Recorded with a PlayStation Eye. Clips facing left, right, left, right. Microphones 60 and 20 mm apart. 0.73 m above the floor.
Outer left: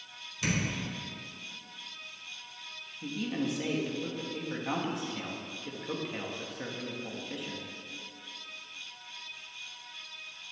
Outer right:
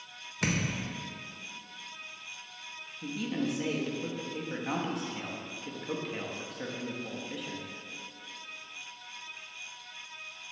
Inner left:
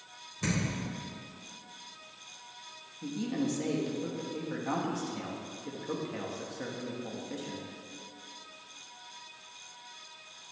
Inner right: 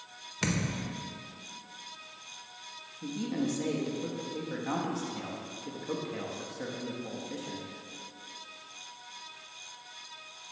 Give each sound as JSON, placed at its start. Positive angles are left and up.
{"t": 0.4, "sound": "a thud", "side_deg": -60, "distance_m": 1.0}
{"t": 3.0, "sound": "a man speaking", "side_deg": 0, "distance_m": 0.7}